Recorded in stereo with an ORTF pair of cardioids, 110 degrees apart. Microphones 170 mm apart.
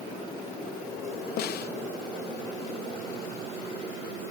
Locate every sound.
1.4 s a snare drum: 65° left, 0.9 m